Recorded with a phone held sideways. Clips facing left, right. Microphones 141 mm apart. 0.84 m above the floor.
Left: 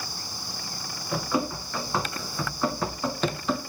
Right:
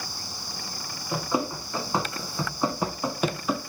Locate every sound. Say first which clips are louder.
1.1 s running footsteps: even; 20° right (ahead or behind), 3.5 m; by 3.6 s 5° right (ahead or behind), 1.2 m